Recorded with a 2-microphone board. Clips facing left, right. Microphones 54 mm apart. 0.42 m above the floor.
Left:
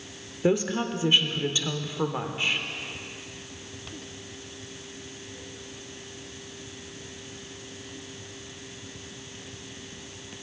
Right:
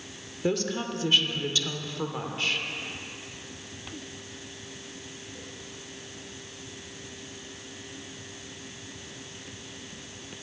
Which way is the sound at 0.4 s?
20° left (ahead or behind).